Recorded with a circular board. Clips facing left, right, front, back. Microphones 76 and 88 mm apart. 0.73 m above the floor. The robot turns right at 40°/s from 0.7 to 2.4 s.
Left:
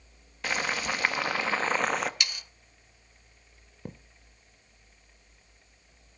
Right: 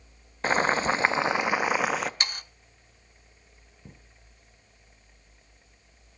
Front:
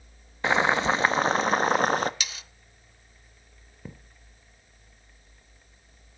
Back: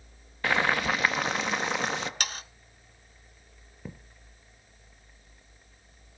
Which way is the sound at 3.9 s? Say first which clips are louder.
Left 9 dB, back 1 dB; 90° left.